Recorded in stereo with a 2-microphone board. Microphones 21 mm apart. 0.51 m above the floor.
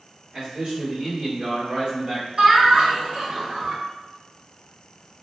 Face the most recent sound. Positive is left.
turn(degrees=-50)  # may be behind; listen again after turning